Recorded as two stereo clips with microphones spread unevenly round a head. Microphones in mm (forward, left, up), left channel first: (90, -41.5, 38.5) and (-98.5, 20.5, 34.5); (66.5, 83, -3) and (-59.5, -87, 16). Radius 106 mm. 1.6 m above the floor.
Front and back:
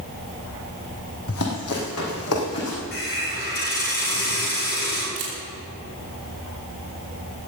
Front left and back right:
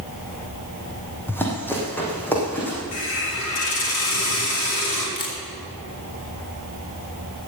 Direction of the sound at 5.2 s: 125° left.